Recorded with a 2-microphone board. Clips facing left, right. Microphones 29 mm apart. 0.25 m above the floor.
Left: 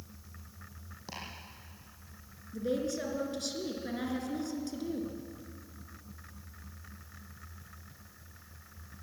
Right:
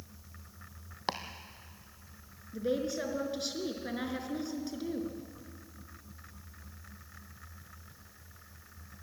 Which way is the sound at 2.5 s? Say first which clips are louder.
Right 1 dB; 15° right (ahead or behind).